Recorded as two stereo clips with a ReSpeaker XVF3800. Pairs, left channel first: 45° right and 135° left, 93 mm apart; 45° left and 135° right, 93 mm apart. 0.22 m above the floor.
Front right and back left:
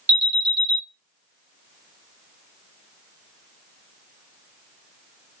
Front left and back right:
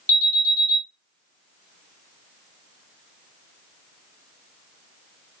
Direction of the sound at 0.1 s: 165° right.